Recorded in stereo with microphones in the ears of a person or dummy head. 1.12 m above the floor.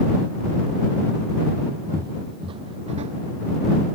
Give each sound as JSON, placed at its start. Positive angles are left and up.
{"t": 1.9, "sound": "footsteps", "side_deg": -20}